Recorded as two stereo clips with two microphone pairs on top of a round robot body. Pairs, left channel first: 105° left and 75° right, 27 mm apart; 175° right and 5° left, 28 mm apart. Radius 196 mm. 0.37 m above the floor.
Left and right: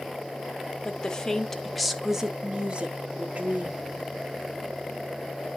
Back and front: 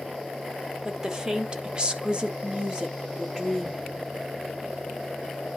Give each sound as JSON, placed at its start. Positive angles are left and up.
{"t": 0.8, "sound": "a woman speaking", "azimuth_deg": 70, "distance_m": 2.0}